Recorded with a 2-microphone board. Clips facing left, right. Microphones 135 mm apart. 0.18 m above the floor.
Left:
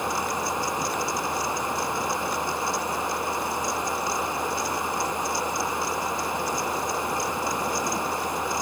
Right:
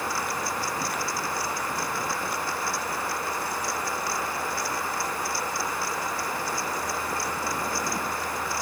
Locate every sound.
Only background noise.